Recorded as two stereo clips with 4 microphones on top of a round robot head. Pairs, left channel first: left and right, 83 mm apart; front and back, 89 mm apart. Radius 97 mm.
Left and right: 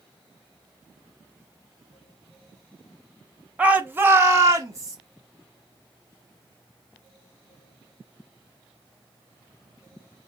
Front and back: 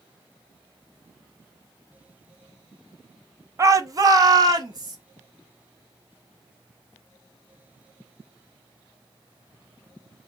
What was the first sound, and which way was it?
A shout, 155° right.